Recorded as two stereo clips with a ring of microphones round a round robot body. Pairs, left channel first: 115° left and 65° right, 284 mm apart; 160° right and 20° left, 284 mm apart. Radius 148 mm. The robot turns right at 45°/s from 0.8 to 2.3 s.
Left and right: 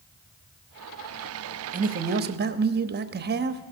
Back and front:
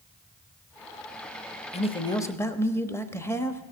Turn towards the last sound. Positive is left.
turn(degrees=-80)